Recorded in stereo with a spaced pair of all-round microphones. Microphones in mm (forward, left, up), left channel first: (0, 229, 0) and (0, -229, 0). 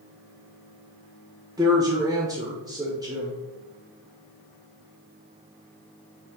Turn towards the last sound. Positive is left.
turn(degrees=-10)  # may be behind; listen again after turning